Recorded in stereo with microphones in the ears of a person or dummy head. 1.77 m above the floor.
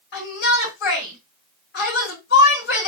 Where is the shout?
55° left (ahead or behind), 3.5 m.